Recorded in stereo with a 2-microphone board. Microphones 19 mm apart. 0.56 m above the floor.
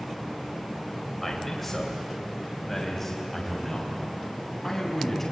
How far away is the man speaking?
About 3 m.